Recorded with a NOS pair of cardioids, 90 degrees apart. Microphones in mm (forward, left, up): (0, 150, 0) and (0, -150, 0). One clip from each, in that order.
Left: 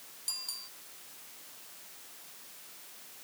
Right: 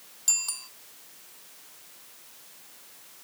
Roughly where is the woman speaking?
No woman speaking in this recording.